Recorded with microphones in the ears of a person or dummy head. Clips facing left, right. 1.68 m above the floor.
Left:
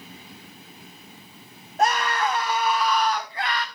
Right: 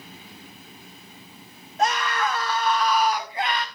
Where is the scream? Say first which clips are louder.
Left 1 dB; 40° left (ahead or behind), 1.4 m; by 3.6 s 20° right (ahead or behind), 1.9 m.